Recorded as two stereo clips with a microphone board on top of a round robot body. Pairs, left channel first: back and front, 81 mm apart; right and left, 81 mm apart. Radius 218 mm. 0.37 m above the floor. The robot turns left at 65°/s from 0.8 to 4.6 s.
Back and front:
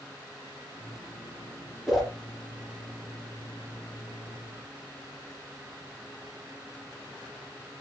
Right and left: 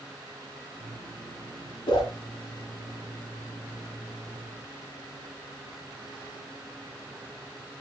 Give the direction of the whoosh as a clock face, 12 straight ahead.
3 o'clock.